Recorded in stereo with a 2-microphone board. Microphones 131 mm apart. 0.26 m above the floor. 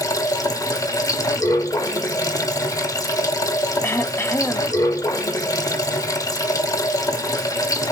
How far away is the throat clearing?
About 0.7 m.